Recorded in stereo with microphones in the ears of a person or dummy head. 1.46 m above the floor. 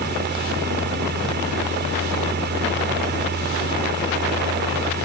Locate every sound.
0.0 s a fan: 55° right (ahead or behind)